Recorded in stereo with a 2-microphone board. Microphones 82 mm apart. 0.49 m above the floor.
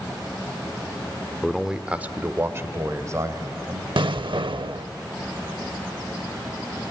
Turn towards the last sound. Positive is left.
turn(degrees=-80)